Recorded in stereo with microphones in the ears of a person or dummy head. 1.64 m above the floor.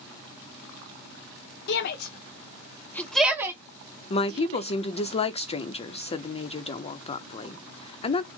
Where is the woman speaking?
25° left (ahead or behind), 0.6 m.